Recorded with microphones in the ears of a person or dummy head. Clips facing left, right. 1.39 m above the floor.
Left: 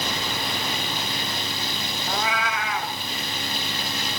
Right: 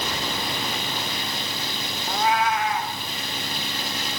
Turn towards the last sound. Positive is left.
turn(degrees=65)  # may be behind; listen again after turning